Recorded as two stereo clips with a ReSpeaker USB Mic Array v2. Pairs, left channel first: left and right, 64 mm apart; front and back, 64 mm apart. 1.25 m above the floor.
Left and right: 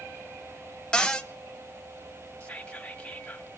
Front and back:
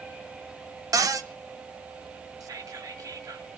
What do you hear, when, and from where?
0.9 s a cupboard door: 165° left, 1.0 m
2.4 s whispering: 160° left, 1.8 m